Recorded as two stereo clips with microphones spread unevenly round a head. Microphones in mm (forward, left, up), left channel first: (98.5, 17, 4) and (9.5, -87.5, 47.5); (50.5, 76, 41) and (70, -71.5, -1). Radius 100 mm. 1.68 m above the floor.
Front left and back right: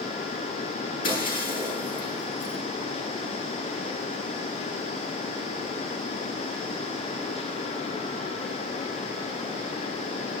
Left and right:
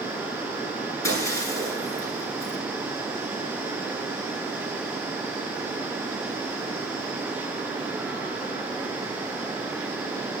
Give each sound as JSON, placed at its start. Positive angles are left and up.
{"t": 1.0, "sound": "breaking glass", "azimuth_deg": 30, "distance_m": 9.5}